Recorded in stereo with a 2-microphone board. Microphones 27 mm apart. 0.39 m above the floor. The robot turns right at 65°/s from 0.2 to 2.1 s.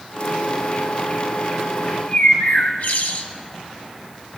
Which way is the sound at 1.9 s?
75° left (ahead or behind).